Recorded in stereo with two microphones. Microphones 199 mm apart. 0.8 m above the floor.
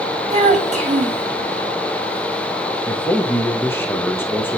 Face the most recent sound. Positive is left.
turn(degrees=10)  # may be behind; listen again after turning